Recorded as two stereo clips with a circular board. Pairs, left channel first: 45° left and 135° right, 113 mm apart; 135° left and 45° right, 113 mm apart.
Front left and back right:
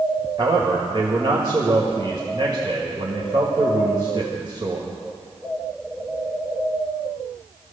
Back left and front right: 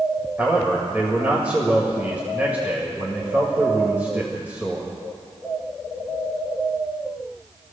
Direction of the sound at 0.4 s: 115° right.